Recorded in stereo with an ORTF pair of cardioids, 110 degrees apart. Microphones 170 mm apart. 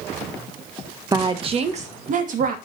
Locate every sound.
1.1 s a woman speaking: 25° right, 1.3 m; by 2.5 s 55° right, 2.5 m